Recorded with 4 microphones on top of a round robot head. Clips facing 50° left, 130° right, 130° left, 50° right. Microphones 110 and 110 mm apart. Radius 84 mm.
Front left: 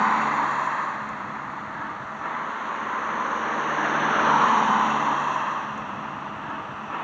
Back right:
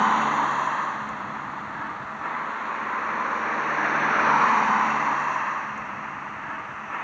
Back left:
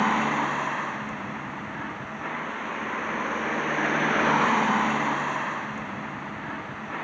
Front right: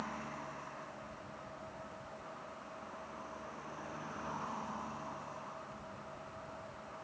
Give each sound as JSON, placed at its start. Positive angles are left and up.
{"t": 0.0, "sound": "a vehicle", "azimuth_deg": 140}